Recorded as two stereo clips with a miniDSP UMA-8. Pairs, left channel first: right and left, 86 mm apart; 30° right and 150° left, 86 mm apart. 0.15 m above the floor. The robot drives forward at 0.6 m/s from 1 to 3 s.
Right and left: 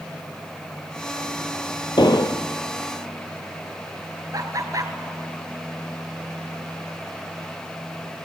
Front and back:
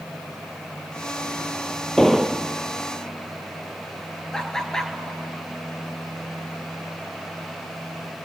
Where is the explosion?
110° right, 0.6 m; by 2.5 s 135° right, 0.8 m.